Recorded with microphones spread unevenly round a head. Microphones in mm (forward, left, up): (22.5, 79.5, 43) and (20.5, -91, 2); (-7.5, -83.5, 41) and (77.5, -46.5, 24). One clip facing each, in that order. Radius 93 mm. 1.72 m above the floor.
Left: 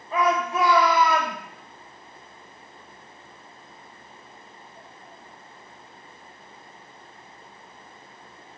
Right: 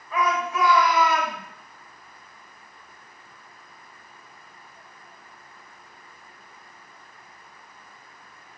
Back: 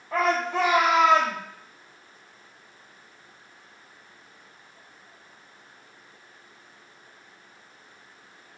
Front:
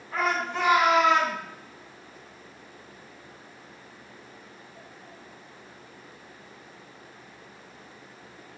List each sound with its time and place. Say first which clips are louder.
0.1 s a shout: left 2 dB, back 4 dB; 150° left, 1.7 m